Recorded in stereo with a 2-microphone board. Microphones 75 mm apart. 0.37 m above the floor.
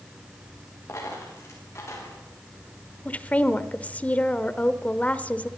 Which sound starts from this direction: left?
A dropped coin, at 0.9 s.